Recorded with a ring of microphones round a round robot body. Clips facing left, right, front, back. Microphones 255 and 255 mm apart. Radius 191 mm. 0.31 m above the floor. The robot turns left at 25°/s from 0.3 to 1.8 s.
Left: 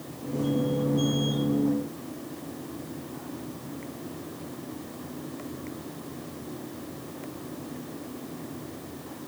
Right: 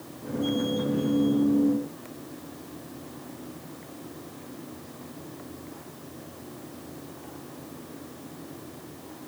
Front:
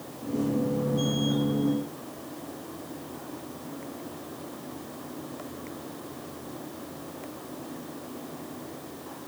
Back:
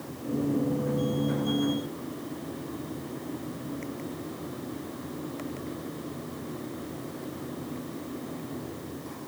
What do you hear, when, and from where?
Only background noise.